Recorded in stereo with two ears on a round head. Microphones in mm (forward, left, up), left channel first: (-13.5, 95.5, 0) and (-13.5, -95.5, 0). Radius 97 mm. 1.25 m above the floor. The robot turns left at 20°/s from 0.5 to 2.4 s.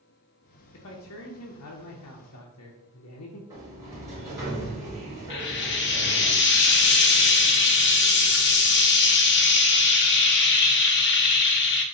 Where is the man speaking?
110° left, 0.5 m; by 3.4 s 80° left, 0.5 m.